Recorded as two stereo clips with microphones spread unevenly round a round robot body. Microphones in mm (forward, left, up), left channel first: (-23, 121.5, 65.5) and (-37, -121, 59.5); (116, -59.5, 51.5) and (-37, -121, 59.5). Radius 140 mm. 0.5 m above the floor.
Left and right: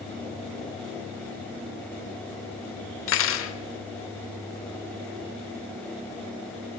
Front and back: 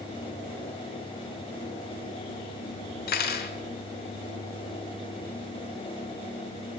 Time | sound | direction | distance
3.1 | cutlery clinking | 50° left | 0.9 m